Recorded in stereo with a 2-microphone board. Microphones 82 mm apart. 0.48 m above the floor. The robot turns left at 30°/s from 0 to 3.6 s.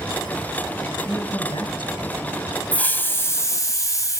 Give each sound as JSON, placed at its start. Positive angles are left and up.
{"t": 1.1, "sound": "a man speaking", "azimuth_deg": 110, "distance_m": 3.0}
{"t": 2.7, "sound": "a hiss", "side_deg": 20, "distance_m": 1.1}